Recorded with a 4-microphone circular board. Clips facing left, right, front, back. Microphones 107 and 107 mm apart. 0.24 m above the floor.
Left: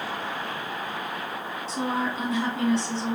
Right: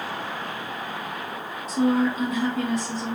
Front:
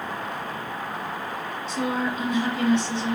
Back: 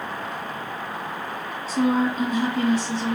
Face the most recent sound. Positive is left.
turn(degrees=140)